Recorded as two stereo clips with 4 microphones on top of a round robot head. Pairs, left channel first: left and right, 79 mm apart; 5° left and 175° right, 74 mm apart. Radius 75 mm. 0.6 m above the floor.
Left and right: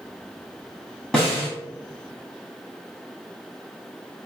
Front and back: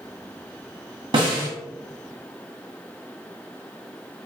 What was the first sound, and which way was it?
A snare drum, 175° left.